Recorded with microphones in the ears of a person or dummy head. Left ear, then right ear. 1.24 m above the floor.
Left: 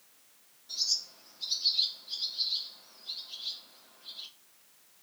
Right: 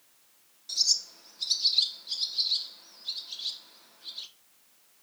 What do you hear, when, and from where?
0.7 s a bird: 65° right (ahead or behind), 1.0 m